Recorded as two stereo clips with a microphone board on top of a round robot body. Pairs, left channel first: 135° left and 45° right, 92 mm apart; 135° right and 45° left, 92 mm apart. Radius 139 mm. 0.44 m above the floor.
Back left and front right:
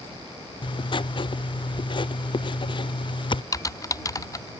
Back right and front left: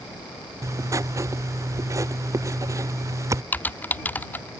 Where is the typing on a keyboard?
165° left.